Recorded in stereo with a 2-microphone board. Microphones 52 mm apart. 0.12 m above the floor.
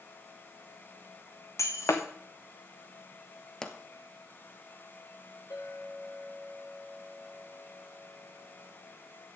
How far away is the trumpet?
I don't hear a trumpet.